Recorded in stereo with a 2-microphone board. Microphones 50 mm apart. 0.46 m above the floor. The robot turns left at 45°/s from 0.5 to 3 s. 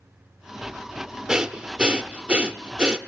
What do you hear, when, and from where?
1.3 s breathing: 15° right (ahead or behind), 0.9 m